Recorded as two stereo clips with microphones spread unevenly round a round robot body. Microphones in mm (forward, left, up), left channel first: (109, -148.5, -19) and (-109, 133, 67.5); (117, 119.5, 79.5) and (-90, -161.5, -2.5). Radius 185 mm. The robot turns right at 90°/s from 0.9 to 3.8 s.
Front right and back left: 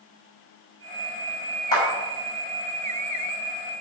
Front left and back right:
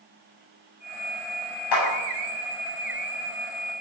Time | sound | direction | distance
1.7 | a clap | 25° left | 6 m